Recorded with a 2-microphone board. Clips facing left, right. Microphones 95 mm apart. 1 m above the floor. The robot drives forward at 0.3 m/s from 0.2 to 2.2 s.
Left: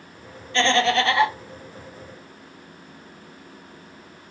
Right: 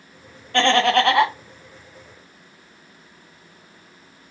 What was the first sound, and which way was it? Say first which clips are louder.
Laughter: right 3 dB; 55° right (ahead or behind).